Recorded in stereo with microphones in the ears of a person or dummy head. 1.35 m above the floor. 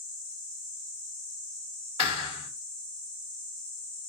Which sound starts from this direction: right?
A thud, at 2.0 s.